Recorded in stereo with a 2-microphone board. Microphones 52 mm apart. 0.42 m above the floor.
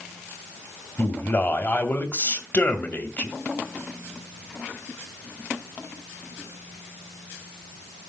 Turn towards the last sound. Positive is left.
turn(degrees=35)  # may be behind; listen again after turning